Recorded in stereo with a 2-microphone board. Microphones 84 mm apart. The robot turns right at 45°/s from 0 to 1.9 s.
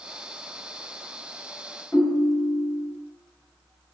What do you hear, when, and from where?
1.9 s a ringtone: 30° left (ahead or behind), 1.1 m